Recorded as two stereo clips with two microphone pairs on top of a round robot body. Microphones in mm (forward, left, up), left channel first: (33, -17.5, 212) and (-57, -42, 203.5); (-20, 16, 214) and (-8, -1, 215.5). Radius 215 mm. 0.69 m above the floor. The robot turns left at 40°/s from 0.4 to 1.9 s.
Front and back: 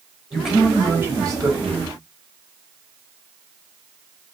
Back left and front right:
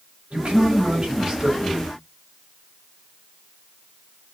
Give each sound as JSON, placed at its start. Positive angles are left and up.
{"t": 0.3, "sound": "a man speaking", "azimuth_deg": -75, "distance_m": 5.0}